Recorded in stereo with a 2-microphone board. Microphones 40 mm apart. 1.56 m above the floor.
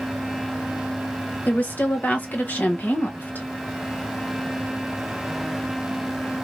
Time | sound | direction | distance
1.5 | a woman speaking | 50° left (ahead or behind) | 1.2 m